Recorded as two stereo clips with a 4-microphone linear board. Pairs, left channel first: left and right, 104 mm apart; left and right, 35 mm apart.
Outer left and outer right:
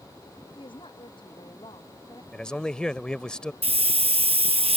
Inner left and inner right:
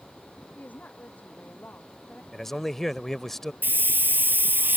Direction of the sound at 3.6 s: 75° right (ahead or behind).